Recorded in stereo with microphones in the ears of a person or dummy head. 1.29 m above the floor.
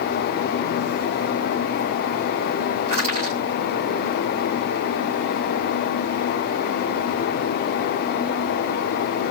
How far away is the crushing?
About 3 m.